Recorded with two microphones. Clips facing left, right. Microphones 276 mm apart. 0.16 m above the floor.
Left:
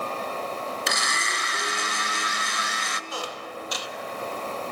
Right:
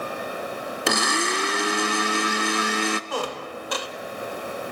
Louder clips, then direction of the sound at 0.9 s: Right 9 dB; 65° right (ahead or behind).